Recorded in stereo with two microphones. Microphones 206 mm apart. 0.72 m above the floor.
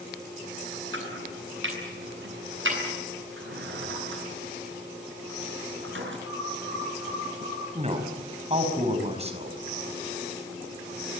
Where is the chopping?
75° right (ahead or behind), 8.5 m.